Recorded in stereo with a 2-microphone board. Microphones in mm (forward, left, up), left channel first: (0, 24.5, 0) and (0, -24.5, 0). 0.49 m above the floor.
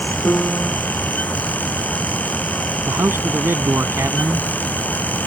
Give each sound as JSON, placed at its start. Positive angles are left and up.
{"t": 0.2, "sound": "a piano", "side_deg": 45}
{"t": 2.9, "sound": "a man speaking", "side_deg": -70}